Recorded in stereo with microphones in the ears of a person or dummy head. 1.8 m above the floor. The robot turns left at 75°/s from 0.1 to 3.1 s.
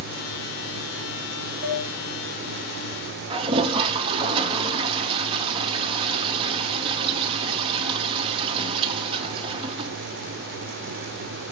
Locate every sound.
1.6 s dishes clattering: 10° left (ahead or behind), 3 m; by 1.9 s 25° left (ahead or behind), 3 m
3.3 s a toilet flushing: 30° right (ahead or behind), 0.8 m